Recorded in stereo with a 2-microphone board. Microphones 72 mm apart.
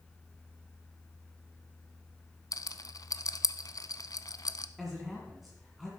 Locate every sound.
2.5 s a rattle: 60° left (ahead or behind), 0.6 m
4.8 s a man speaking: centre (ahead or behind), 1.9 m